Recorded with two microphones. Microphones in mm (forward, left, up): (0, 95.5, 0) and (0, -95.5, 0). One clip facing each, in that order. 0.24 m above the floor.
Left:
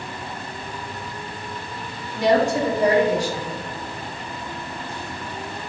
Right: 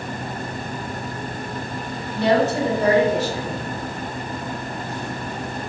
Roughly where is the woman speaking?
Centre.